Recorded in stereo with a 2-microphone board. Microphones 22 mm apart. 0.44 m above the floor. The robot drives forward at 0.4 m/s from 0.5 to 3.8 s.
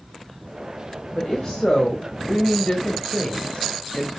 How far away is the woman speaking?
About 1.8 m.